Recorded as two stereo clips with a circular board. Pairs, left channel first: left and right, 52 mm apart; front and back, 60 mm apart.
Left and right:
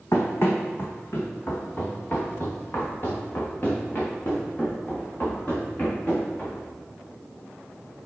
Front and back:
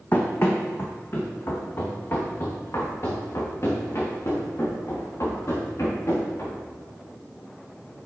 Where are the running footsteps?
55° left, 1.6 m; by 6.6 s 30° left, 5.5 m.